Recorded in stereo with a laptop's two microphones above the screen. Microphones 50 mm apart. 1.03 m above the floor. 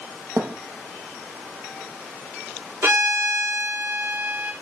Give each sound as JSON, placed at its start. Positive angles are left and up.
{"t": 0.4, "sound": "a thud", "side_deg": -65, "distance_m": 2.5}
{"t": 2.8, "sound": "a violin", "side_deg": -65, "distance_m": 4.0}